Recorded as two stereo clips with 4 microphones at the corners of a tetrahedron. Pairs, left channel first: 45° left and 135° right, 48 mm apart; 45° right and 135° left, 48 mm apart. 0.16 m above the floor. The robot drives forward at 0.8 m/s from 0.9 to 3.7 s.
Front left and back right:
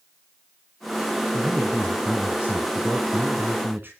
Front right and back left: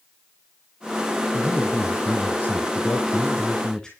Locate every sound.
1.3 s a man speaking: 55° right, 2.5 m; by 3.9 s 120° right, 2.5 m